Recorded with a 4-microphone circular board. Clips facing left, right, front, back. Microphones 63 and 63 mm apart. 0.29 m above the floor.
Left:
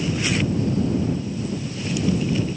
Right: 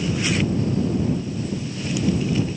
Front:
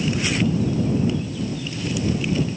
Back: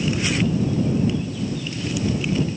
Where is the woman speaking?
I don't hear a woman speaking.